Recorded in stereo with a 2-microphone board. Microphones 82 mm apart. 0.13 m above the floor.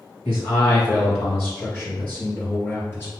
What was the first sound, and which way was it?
A man speaking, 15° left (ahead or behind).